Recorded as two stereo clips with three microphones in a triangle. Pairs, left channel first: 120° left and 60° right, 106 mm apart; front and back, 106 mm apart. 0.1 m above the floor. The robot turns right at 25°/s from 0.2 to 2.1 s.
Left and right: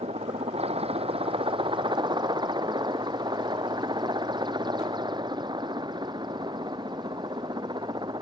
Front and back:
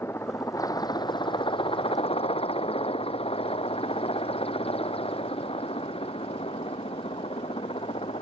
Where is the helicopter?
65° right; by 8.2 s 15° right.